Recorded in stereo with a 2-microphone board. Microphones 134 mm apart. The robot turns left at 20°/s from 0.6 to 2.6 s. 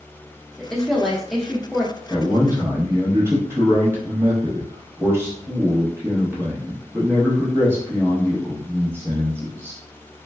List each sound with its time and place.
0.6 s a woman speaking: 5° left (ahead or behind), 0.5 m; by 1.9 s 5° right (ahead or behind), 0.5 m
2.1 s a man speaking: 20° right (ahead or behind), 0.8 m